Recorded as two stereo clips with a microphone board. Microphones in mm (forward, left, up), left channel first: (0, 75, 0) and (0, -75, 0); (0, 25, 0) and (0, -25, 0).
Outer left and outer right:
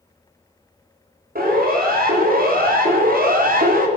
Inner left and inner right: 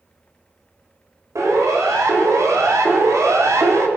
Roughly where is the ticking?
I don't hear ticking.